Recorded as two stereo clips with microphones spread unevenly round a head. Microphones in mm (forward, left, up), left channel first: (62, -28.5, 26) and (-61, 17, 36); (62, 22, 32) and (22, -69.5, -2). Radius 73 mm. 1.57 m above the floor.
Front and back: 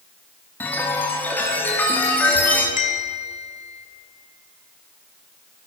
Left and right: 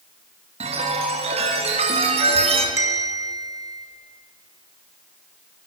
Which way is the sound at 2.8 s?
50° right.